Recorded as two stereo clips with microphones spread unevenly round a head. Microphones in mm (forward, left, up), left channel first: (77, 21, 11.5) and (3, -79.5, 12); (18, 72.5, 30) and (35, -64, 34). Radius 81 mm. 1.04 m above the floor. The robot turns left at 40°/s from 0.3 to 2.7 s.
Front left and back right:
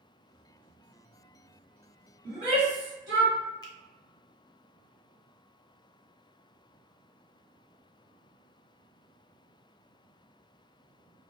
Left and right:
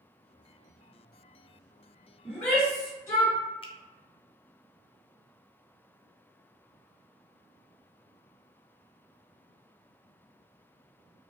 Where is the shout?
175° right, 1.8 m; by 3.4 s 165° left, 1.8 m.